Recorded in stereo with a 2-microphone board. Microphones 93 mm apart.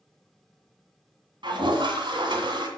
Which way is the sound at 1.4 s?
55° right (ahead or behind).